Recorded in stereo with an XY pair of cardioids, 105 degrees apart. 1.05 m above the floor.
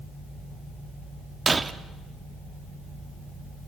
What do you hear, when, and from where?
1.5 s breaking glass: 25° right, 1.1 m